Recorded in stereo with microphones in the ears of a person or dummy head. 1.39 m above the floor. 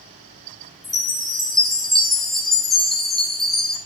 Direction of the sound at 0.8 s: Centre (ahead or behind).